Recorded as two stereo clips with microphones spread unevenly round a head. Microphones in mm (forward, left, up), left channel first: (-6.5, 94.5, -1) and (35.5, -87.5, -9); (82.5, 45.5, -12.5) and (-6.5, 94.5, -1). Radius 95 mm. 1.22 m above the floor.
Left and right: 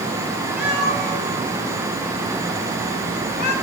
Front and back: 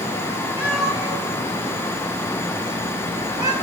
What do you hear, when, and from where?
0.6 s a cat meowing: 160° right, 2.5 m; by 3.5 s 155° left, 3 m